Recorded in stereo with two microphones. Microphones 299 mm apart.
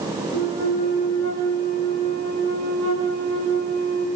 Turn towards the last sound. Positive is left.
turn(degrees=70)  # may be behind; listen again after turning